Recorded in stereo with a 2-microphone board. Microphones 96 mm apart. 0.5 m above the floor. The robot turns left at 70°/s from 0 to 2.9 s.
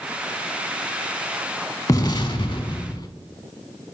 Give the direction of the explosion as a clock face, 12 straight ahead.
8 o'clock.